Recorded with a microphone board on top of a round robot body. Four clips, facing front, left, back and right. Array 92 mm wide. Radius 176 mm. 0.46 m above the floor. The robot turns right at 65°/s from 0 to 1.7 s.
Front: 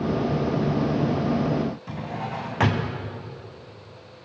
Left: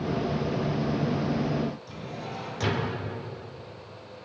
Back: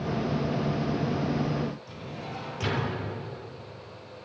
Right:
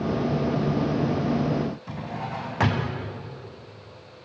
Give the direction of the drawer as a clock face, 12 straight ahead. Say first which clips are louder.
Right 4 dB, front 7 dB; 1 o'clock.